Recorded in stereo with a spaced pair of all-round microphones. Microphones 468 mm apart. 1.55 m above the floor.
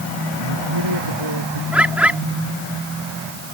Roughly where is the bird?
Centre.